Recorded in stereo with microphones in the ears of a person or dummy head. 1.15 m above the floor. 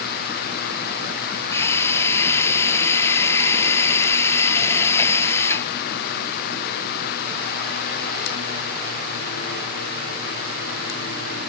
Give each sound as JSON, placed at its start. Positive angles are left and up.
{"t": 1.5, "sound": "a drill", "side_deg": 15}